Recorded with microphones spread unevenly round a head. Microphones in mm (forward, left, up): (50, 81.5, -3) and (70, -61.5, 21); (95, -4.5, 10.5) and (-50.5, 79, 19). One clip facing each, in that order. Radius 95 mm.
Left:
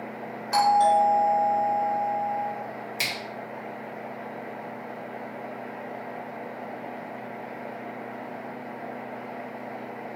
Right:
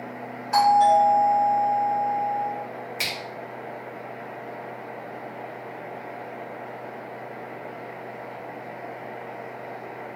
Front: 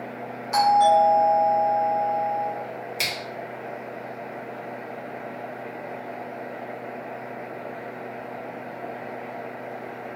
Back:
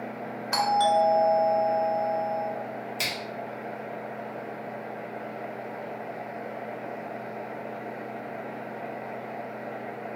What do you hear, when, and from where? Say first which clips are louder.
0.5 s a doorbell: right 3 dB, front 5 dB; 150° left, 1.4 m
3.0 s a finger snap: right 1 dB, front 1 dB; 50° left, 1.7 m